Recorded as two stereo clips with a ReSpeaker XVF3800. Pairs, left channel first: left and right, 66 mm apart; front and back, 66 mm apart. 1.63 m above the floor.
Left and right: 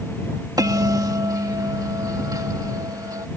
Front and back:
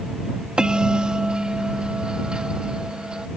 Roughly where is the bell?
Right.